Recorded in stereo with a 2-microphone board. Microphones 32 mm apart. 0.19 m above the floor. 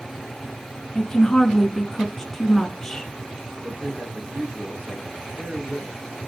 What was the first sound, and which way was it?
A woman speaking, 10° left (ahead or behind).